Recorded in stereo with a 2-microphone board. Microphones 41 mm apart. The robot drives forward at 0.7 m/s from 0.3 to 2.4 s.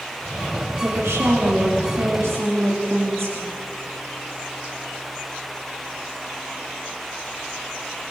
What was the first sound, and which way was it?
A woman speaking, 70° right (ahead or behind).